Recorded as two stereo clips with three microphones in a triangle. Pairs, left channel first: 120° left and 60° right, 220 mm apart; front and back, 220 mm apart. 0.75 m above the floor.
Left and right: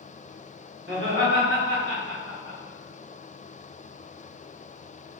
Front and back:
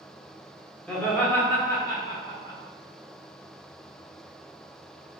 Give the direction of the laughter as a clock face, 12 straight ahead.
3 o'clock.